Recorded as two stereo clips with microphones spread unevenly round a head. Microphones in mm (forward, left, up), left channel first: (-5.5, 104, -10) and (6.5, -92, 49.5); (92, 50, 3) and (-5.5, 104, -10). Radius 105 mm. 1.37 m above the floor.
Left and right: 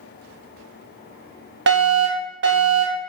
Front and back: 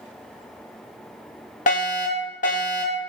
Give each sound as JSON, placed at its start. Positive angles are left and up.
{"t": 1.7, "sound": "a fire alarm", "azimuth_deg": -50, "distance_m": 4.0}